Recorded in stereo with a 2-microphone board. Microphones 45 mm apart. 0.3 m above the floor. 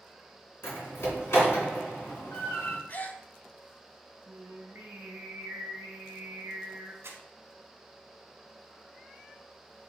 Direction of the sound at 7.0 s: 75° right (ahead or behind).